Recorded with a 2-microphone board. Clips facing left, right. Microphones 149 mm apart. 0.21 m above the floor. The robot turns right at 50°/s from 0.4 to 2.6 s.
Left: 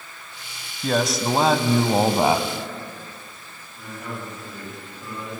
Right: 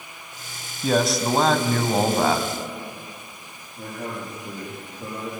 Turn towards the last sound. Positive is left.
turn(degrees=-40)  # may be behind; listen again after turning